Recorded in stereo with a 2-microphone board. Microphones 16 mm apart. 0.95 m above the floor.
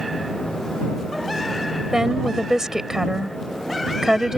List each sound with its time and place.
1.9 s a woman speaking: 30° right (ahead or behind)